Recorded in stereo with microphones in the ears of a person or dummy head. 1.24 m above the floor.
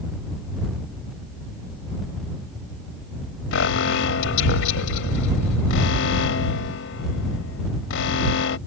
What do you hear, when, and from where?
3.5 s an alarm: 80° left